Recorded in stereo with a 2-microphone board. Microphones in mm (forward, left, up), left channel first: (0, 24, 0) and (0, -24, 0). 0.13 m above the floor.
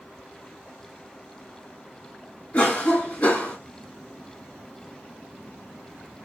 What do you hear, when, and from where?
2.5 s a cough: 35° left (ahead or behind), 1.9 m